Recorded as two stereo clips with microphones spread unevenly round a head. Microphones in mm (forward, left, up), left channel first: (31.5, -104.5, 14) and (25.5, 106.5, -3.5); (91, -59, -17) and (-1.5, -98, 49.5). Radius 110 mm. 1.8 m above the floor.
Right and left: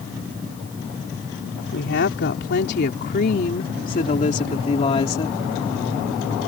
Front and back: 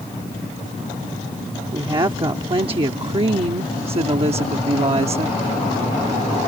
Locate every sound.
1.7 s a woman speaking: 130° right; by 5.4 s 155° right